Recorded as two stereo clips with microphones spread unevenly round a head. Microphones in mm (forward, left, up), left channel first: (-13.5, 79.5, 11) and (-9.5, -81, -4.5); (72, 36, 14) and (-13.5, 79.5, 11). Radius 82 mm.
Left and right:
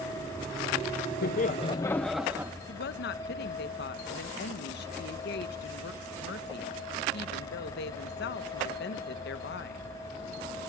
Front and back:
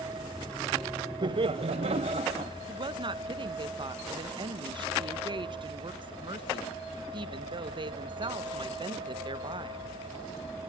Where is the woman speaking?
115° left, 1.3 m.